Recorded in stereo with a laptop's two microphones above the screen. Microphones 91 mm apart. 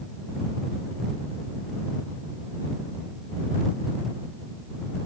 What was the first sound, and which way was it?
Only background noise.